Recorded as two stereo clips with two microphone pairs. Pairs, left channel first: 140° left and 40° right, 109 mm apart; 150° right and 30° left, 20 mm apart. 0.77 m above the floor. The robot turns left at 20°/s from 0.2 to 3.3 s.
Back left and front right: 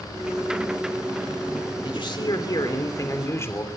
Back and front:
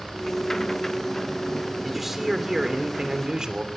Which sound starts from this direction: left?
A man speaking, at 1.8 s.